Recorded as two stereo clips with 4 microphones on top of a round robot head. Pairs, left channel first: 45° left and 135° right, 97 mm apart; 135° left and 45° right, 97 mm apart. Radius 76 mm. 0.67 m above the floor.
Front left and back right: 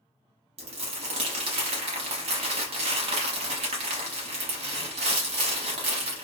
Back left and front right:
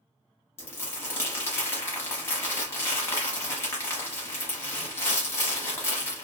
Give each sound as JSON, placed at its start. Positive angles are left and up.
{"t": 0.6, "sound": "crumpling", "azimuth_deg": -160, "distance_m": 0.8}